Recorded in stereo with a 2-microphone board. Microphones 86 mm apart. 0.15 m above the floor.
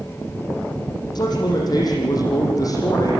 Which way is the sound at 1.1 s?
50° left (ahead or behind).